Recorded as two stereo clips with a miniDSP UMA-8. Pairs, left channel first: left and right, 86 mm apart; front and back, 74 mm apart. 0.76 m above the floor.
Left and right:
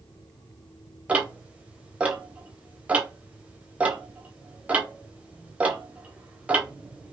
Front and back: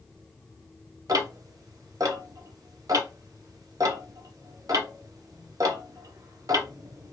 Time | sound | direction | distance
1.1 | ticking | 165° right | 0.7 m